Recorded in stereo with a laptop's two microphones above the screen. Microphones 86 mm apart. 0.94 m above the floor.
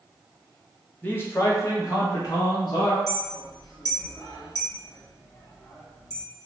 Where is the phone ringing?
I don't hear a phone ringing.